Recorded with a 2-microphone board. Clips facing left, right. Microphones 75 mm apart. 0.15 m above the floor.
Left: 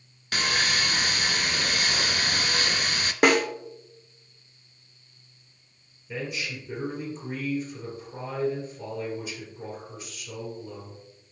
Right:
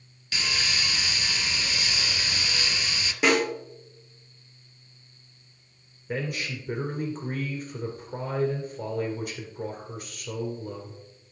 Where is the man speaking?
55° right (ahead or behind), 2.5 m.